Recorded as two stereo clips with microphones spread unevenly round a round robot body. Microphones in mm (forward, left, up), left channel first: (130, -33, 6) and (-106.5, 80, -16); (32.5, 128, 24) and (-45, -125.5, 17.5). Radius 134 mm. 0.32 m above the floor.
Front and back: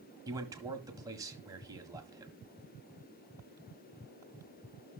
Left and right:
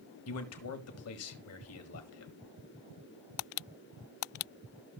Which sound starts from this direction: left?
A man speaking, at 0.3 s.